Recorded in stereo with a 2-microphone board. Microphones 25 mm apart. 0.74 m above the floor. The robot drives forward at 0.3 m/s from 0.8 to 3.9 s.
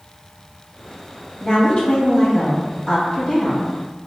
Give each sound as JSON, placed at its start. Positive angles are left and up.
{"t": 1.4, "sound": "a woman speaking", "side_deg": 25, "distance_m": 1.2}